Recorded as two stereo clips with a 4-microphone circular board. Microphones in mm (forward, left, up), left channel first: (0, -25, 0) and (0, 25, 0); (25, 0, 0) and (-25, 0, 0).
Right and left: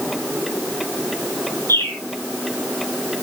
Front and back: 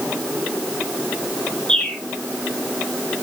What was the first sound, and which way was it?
A bird, 70° right.